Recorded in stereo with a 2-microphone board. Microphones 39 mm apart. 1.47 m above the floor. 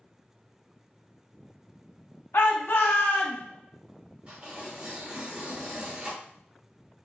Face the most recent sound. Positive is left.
turn(degrees=-25)  # may be behind; listen again after turning